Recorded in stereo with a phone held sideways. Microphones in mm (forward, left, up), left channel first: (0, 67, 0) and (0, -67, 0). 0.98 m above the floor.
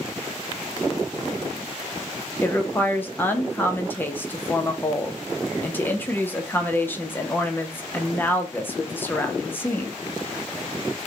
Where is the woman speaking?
15° left (ahead or behind), 0.6 m.